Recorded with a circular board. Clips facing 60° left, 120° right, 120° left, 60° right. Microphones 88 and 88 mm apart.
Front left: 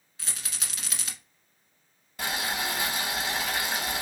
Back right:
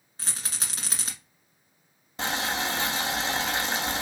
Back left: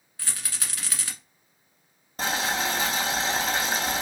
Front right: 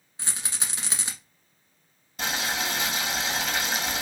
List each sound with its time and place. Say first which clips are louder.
0.2 s a rattle: back right 2 dB, front right 1 dB; 110° right, 1.2 m
2.2 s boiling: back right 2 dB, back left 3 dB; 175° left, 1.1 m